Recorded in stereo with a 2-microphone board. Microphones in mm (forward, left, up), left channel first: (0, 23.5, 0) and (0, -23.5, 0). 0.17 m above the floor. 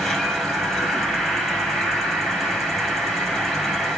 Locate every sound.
0.0 s an insect: 5° left (ahead or behind), 4 m